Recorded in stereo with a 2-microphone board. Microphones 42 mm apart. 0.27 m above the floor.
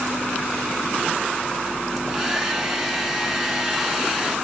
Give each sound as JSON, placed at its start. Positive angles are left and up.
{"t": 2.0, "sound": "a hair dryer", "side_deg": -10, "distance_m": 2.0}